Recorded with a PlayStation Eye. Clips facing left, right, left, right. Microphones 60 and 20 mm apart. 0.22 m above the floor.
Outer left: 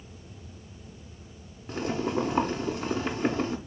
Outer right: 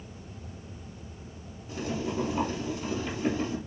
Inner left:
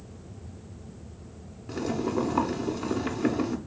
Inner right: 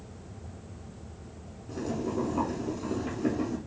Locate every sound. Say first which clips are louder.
1.7 s boiling: outer left 4 dB, inner left 4 dB; 55° left (ahead or behind), 0.6 m